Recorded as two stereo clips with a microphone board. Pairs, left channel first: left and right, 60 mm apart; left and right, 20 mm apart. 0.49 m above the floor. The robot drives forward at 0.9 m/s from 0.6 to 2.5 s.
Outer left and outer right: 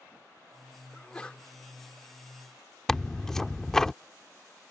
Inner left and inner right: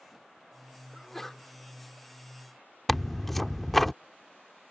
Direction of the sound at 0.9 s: 15° left (ahead or behind).